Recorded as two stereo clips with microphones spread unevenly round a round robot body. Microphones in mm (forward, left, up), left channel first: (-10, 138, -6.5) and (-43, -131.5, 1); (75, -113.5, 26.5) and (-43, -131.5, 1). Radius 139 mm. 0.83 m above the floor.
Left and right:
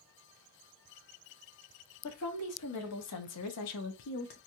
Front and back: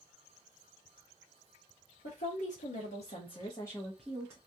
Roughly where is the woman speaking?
Ahead left.